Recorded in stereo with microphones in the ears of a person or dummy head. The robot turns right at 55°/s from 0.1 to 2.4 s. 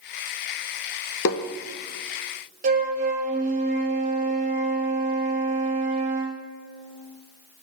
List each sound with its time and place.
1.2 s tapping: 70° left (ahead or behind), 0.6 m; by 1.4 s 75° left (ahead or behind), 0.6 m
2.6 s a flute: 40° right (ahead or behind), 1.2 m